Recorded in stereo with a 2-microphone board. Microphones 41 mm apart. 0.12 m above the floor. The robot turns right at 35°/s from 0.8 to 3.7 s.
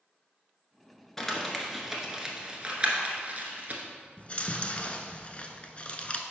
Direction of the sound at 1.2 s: 10° left (ahead or behind).